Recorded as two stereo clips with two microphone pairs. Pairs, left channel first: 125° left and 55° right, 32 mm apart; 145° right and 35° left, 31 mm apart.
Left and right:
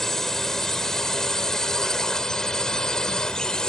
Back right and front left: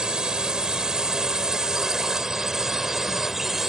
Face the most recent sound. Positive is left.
turn(degrees=100)